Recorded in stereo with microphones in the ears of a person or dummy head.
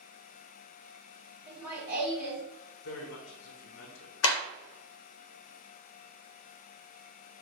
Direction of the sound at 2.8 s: 70° left (ahead or behind).